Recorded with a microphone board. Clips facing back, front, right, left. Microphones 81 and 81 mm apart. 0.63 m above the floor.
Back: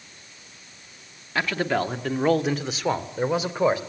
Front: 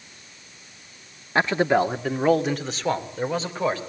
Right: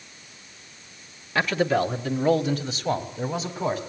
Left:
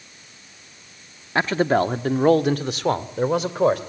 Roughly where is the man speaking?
Ahead left.